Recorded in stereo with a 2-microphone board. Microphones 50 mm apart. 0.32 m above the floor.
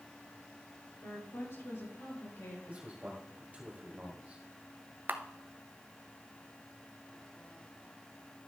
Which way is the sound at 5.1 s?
40° right (ahead or behind).